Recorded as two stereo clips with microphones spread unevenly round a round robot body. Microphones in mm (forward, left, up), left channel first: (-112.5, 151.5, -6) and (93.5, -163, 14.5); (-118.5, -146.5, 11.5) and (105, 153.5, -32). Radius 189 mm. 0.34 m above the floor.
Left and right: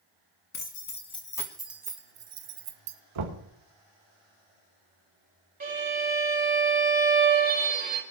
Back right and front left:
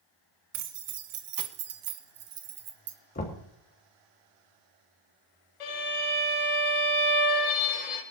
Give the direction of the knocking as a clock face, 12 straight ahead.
2 o'clock.